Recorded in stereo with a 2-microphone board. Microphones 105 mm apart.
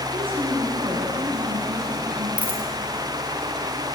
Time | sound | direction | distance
0.1 | a woman speaking | 65° right (ahead or behind) | 8.5 m
2.4 | a dropped coin | 15° right (ahead or behind) | 4 m